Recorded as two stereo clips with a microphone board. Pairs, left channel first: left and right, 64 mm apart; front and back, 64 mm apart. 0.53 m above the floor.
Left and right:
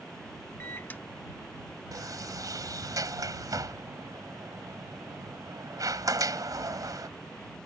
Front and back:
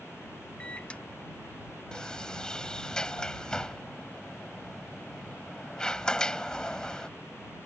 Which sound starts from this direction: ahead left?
A microwave, at 0.6 s.